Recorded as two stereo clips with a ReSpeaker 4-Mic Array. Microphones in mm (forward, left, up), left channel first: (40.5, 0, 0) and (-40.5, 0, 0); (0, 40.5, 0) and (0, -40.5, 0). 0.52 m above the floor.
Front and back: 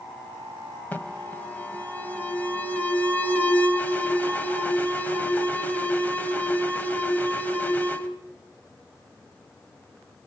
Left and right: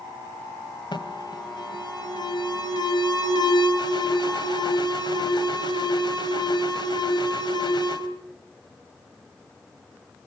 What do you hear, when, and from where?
0.9 s an alarm: 70° left, 2 m